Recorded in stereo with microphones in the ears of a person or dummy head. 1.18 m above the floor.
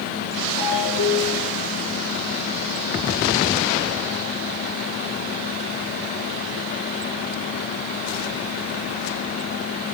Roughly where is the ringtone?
Left.